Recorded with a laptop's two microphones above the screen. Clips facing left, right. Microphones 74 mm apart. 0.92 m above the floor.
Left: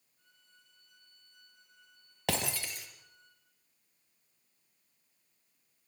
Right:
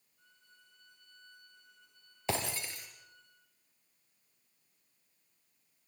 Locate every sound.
0.2 s a violin: 55° left (ahead or behind), 9.5 m
2.3 s breaking glass: 75° left (ahead or behind), 5.5 m